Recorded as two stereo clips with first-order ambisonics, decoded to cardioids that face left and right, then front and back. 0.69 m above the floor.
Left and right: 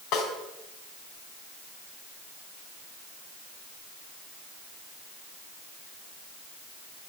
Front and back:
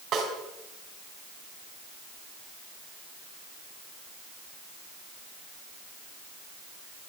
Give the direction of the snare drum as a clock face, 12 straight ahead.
8 o'clock.